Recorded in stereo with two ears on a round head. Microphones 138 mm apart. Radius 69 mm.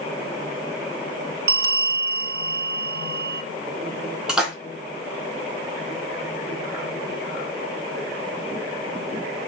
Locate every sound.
1.5 s a bell: 65° right (ahead or behind), 1.1 m
4.3 s a splash: 5° right (ahead or behind), 3.5 m